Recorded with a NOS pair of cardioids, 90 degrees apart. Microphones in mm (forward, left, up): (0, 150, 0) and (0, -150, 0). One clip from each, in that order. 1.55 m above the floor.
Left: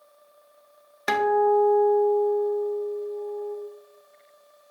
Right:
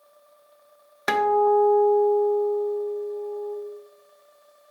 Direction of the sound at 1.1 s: 5° right.